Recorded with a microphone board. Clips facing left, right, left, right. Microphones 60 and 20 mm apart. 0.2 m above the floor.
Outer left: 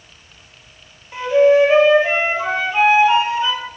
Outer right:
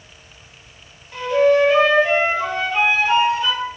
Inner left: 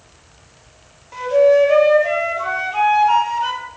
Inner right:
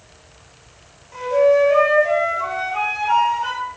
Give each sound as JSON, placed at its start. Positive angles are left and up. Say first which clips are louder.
{"t": 1.1, "sound": "a flute", "louder": "outer left 3 dB, inner left 2 dB", "side_deg": 20, "distance_m": 4.0}